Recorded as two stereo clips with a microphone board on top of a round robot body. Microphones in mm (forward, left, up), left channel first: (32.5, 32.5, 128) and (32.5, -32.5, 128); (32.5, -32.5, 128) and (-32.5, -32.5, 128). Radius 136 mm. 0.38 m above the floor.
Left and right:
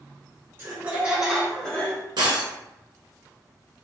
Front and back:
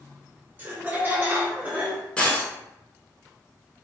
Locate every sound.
0.6 s laughter: 135° right, 1.8 m; by 2.0 s 130° left, 1.5 m
2.2 s breaking glass: 75° right, 0.9 m